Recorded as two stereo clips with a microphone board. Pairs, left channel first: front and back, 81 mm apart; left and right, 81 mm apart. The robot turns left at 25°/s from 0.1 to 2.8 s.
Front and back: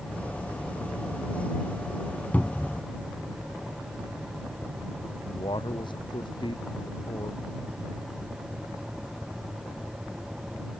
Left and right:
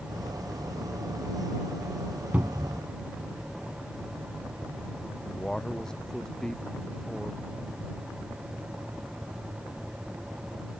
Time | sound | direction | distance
2.3 | a cupboard door | 45° right | ?
5.3 | a man speaking | 10° left | ?